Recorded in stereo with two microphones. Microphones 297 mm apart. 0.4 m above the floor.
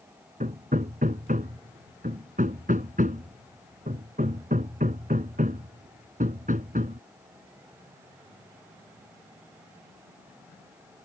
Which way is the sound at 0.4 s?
25° right (ahead or behind).